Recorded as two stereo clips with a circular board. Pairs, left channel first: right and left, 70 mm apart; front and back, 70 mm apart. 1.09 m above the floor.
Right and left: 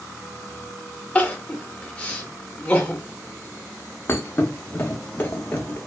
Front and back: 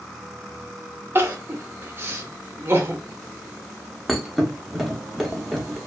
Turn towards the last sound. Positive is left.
turn(degrees=-90)